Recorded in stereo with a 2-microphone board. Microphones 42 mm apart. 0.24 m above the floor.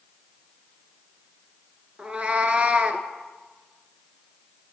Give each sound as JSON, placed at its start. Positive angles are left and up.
{"t": 2.0, "sound": "a cat meowing", "side_deg": -30, "distance_m": 0.5}